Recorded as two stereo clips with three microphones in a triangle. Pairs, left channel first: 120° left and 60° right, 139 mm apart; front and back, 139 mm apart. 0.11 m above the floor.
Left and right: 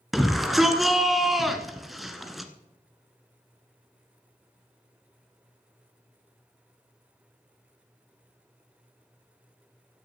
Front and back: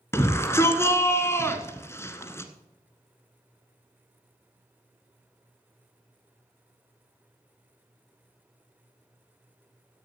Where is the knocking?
No knocking in this recording.